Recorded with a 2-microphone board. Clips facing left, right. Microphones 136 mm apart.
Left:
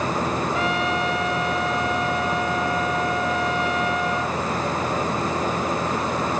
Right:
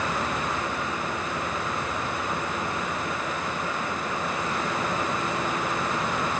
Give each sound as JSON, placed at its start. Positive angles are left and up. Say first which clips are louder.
{"t": 0.5, "sound": "a trumpet", "louder": "left 7 dB", "side_deg": 85}